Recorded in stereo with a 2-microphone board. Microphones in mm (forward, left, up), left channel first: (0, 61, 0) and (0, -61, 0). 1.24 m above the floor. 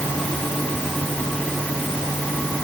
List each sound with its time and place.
Only background noise.